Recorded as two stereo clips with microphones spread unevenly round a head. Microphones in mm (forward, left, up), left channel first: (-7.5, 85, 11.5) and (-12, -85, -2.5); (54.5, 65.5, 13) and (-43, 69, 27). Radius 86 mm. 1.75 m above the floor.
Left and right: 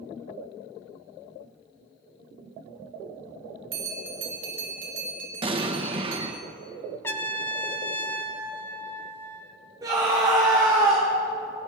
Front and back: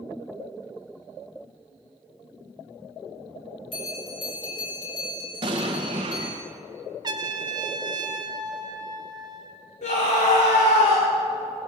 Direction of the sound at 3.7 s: 70° right.